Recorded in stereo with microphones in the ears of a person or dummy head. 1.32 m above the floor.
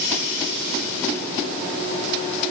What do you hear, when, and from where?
Only background noise.